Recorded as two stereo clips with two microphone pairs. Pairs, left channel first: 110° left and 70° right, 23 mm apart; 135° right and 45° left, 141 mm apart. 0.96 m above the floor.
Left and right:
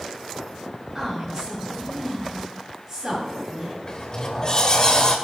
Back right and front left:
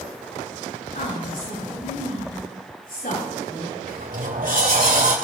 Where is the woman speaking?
140° right, 7.5 m.